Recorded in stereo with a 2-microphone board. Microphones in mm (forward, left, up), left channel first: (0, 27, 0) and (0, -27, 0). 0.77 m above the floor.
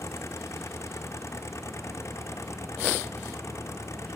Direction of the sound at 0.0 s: 60° left (ahead or behind).